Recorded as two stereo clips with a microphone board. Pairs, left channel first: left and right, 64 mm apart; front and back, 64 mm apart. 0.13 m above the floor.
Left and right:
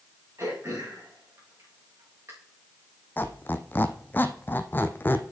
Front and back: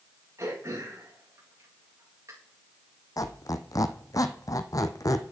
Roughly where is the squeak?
Ahead left.